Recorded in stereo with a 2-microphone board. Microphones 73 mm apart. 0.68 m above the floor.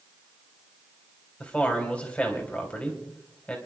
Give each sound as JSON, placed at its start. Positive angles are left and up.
{"t": 1.4, "sound": "a man speaking", "side_deg": 20, "distance_m": 3.5}